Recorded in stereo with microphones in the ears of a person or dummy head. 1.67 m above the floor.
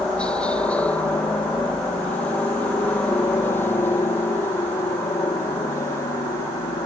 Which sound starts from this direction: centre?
A helicopter, at 0.0 s.